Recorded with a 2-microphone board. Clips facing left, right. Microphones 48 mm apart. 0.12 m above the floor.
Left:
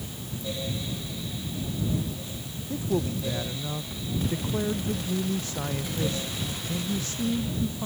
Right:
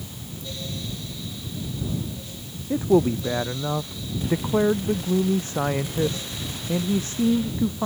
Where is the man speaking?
35° right (ahead or behind).